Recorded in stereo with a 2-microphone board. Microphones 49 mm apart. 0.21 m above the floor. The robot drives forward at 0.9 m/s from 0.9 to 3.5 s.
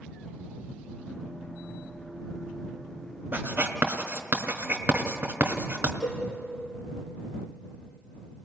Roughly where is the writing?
Right.